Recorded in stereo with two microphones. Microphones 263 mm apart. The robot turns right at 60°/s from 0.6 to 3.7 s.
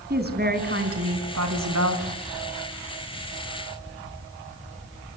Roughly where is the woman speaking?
Behind right.